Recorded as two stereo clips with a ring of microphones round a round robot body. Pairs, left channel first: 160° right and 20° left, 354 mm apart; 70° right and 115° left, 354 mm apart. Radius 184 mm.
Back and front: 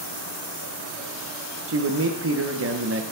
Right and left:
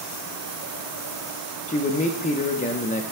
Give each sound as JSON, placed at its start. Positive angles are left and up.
{"t": 1.7, "sound": "a man speaking", "azimuth_deg": -5, "distance_m": 1.0}